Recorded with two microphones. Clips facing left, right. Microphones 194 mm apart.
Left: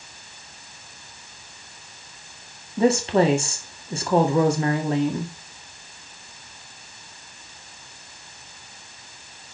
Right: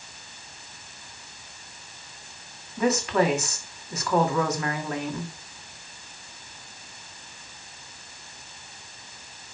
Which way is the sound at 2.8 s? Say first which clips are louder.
Left 4 dB; 30° left (ahead or behind).